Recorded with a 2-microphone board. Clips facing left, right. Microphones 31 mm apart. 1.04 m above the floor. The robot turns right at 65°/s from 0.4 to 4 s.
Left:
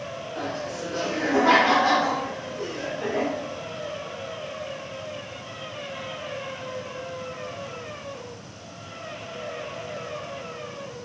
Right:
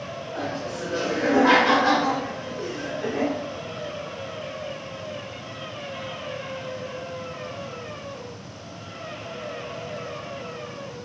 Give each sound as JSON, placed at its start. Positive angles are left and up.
{"t": 0.3, "sound": "laughter", "azimuth_deg": -140, "distance_m": 1.1}